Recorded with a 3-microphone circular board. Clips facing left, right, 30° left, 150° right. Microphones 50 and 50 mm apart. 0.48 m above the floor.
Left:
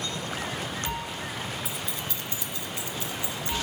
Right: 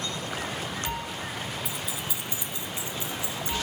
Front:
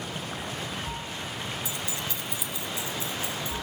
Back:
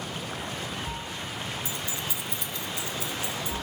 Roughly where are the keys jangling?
Behind.